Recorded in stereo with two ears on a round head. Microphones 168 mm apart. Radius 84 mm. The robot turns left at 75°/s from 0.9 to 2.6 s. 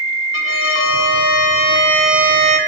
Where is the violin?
85° left, 0.6 m; by 2.6 s 40° right, 0.6 m.